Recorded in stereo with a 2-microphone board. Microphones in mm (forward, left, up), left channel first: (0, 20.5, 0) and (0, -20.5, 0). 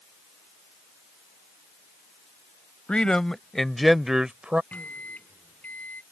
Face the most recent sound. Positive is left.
turn(degrees=40)  # may be behind; listen again after turning